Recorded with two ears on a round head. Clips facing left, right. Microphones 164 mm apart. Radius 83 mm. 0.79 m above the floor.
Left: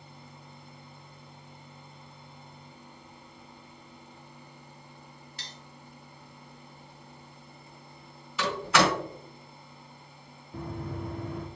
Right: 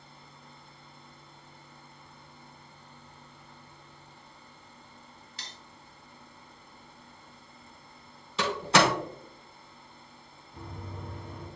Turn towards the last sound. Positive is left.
turn(degrees=50)  # may be behind; listen again after turning